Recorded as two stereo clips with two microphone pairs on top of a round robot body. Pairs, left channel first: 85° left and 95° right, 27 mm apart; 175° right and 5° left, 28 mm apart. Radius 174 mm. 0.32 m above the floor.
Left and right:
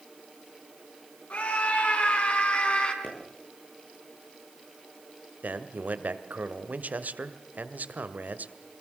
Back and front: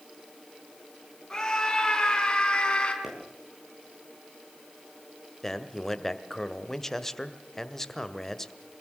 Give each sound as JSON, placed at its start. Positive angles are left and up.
{"t": 1.3, "sound": "a scream", "azimuth_deg": 115, "distance_m": 6.5}
{"t": 3.0, "sound": "a pop", "azimuth_deg": 80, "distance_m": 9.5}
{"t": 5.4, "sound": "a man speaking", "azimuth_deg": -95, "distance_m": 2.0}